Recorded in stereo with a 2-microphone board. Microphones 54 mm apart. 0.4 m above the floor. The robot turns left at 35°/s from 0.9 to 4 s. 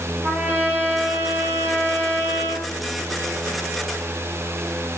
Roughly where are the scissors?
No scissors in this recording.